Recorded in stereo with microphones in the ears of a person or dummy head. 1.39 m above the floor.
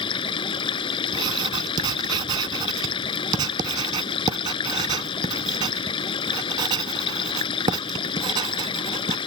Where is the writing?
20° right (ahead or behind).